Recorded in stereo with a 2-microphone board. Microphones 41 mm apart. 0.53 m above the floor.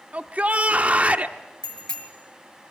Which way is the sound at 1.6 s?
15° left (ahead or behind).